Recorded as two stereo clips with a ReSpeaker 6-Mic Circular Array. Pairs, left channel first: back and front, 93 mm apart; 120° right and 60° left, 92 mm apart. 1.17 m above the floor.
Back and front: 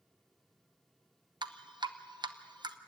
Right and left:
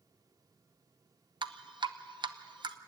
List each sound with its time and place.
1.4 s dripping: 30° left, 0.9 m